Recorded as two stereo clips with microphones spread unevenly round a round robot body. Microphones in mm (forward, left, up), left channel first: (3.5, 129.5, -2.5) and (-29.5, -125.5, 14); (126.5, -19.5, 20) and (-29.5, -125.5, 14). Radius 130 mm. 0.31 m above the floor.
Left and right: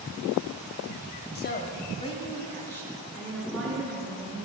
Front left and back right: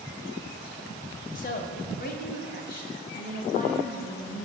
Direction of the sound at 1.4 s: 65° left.